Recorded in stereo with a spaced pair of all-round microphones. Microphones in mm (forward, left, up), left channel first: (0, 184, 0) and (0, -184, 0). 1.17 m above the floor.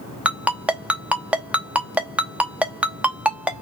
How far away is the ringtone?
About 0.8 m.